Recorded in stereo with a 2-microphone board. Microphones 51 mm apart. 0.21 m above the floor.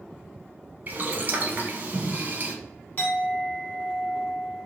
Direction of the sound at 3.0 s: 40° left (ahead or behind).